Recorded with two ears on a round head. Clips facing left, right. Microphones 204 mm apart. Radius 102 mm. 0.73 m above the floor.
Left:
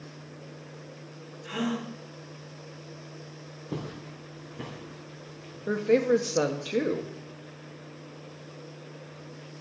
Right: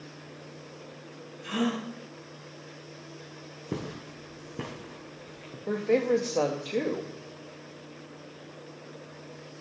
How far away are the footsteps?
About 1.9 m.